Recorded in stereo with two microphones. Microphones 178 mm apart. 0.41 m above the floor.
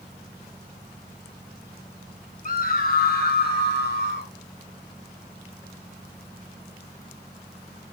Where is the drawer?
No drawer in this recording.